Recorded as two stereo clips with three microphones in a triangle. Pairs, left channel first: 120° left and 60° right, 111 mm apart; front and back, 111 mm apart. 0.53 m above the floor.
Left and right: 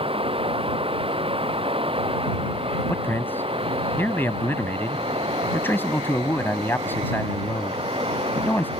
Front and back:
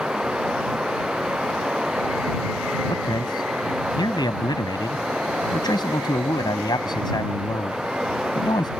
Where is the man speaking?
50° left.